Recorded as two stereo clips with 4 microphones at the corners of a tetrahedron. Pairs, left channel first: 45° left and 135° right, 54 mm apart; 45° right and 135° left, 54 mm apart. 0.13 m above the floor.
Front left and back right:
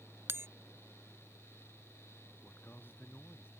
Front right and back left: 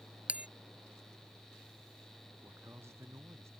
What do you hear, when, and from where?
0.3 s a bell: 165° right
2.4 s a man speaking: 100° left